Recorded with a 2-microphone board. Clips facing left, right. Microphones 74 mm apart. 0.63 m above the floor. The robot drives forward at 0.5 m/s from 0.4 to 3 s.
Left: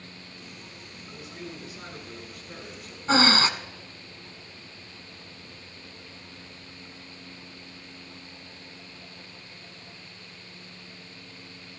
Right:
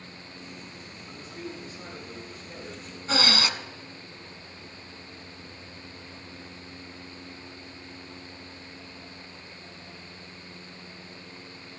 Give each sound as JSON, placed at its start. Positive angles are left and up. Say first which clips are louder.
{"t": 1.1, "sound": "a man speaking", "louder": "right 1 dB", "side_deg": 65, "distance_m": 8.5}
{"t": 3.1, "sound": "breathing", "louder": "left 5 dB", "side_deg": 35, "distance_m": 0.9}